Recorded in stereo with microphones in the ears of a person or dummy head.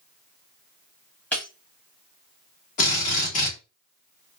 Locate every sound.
1.3 s breaking glass: 10° left (ahead or behind), 1.3 m
2.8 s a drill: 45° left (ahead or behind), 1.7 m